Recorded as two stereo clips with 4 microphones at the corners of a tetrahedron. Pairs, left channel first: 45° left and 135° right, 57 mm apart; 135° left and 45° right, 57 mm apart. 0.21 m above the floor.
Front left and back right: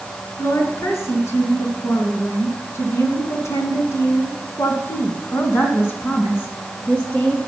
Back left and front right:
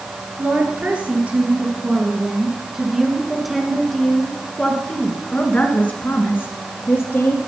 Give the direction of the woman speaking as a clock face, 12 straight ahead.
12 o'clock.